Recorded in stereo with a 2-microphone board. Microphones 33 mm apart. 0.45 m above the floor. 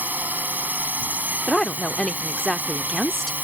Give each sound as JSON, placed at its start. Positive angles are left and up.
{"t": 0.0, "sound": "a drone", "side_deg": -65}
{"t": 1.5, "sound": "a woman speaking", "side_deg": 10}